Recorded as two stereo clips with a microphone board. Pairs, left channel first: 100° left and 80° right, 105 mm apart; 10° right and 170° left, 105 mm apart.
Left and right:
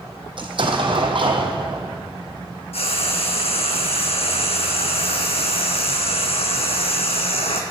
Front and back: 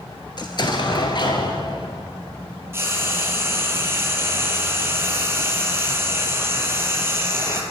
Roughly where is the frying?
Left.